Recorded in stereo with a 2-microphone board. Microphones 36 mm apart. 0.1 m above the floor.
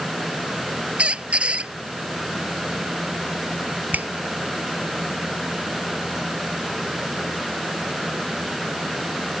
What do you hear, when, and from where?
1.0 s a squeak: 35° right (ahead or behind)
3.9 s a finger snap: 50° right (ahead or behind)